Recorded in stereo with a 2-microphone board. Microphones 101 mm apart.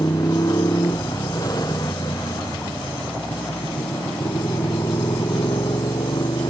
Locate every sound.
0.0 s a motorcycle: 35° left (ahead or behind); by 6.5 s 45° left (ahead or behind)